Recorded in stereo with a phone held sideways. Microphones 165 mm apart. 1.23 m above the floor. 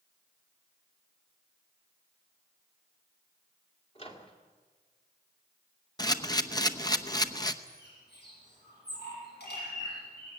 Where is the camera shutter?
25° left (ahead or behind), 0.9 m.